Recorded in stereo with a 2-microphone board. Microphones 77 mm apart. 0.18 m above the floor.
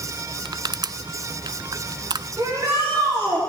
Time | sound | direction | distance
0.5 | crushing | 65° right (ahead or behind) | 0.5 m
2.4 | a shout | 40° right (ahead or behind) | 9.5 m